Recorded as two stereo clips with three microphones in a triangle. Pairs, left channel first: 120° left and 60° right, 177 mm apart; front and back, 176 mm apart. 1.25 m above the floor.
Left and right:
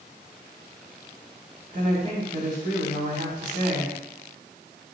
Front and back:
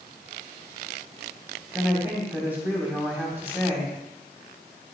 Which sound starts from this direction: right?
A woman speaking, at 1.7 s.